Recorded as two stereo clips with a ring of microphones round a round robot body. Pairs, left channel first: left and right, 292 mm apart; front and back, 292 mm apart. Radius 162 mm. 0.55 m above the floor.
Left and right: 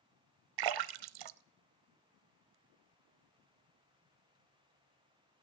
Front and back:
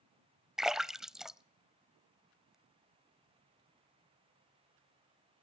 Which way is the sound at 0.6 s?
90° right.